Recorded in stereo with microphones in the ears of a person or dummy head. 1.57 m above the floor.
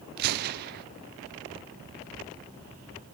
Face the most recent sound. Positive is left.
turn(degrees=-55)  # may be behind; listen again after turning